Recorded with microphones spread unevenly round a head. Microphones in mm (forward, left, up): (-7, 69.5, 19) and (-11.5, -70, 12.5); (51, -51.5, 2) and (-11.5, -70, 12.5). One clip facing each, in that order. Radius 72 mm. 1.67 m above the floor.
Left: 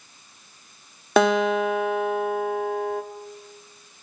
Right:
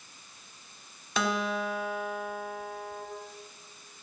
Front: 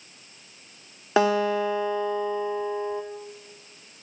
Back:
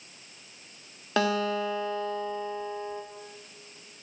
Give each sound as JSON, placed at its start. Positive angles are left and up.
{"t": 1.2, "sound": "a guitar", "azimuth_deg": 100, "distance_m": 1.1}